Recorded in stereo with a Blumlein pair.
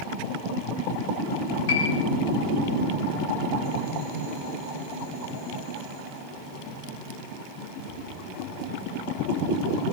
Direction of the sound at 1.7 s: 50° left.